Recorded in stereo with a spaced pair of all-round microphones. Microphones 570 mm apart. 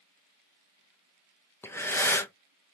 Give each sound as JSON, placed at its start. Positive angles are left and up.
{"t": 1.6, "sound": "breathing", "side_deg": 5, "distance_m": 0.8}